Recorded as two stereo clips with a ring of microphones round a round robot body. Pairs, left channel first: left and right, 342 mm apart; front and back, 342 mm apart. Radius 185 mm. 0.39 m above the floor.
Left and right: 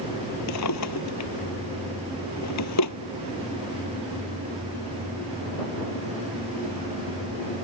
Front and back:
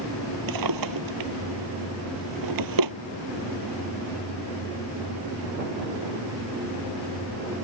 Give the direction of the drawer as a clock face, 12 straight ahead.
7 o'clock.